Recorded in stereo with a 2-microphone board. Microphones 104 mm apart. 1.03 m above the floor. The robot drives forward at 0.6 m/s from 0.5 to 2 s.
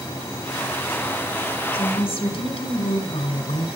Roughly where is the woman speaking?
Left.